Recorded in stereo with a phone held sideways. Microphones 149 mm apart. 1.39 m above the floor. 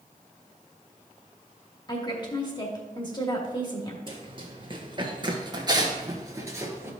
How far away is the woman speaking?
About 1.9 m.